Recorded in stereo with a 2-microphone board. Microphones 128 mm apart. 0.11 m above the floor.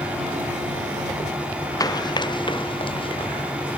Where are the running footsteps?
30° left (ahead or behind); by 3.8 s 45° left (ahead or behind).